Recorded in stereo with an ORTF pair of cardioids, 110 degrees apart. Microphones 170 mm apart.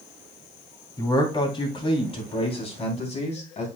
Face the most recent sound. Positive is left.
turn(degrees=40)